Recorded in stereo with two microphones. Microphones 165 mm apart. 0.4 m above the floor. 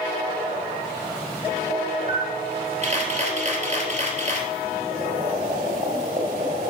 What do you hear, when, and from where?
2.1 s a camera shutter: 45° right (ahead or behind), 2.5 m
4.9 s boiling: 50° right (ahead or behind), 2.5 m